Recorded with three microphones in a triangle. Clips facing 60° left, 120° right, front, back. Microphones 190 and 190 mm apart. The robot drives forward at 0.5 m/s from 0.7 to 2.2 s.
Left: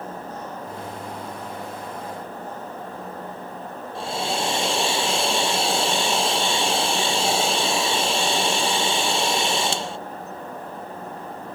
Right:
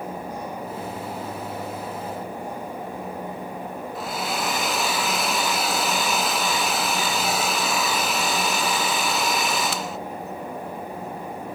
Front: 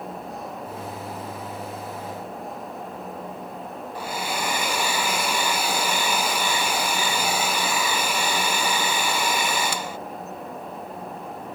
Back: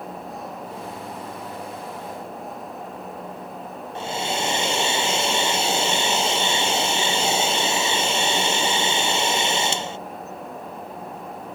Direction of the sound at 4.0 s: 115° left.